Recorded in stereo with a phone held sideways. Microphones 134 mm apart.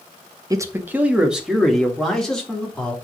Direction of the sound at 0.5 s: 25° right (ahead or behind).